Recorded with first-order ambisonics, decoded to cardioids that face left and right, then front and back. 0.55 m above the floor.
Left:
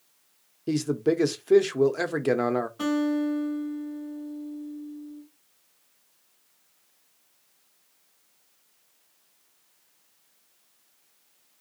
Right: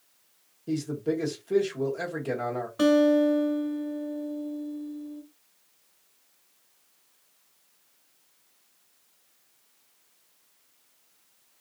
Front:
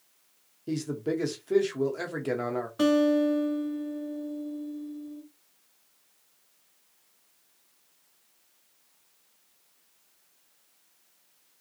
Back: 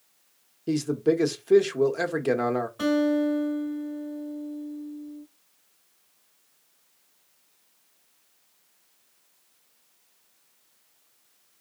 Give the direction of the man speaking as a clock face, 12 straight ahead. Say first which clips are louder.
Left 5 dB, back 7 dB; 8 o'clock.